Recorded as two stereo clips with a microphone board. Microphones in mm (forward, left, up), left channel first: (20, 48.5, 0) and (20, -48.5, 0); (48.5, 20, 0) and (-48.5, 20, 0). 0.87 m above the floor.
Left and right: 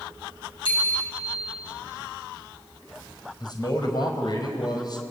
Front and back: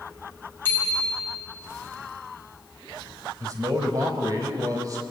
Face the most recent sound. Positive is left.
turn(degrees=130)